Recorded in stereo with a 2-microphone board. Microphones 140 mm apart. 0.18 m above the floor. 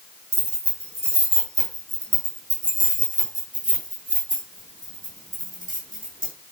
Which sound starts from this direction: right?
Keys jangling, at 0.3 s.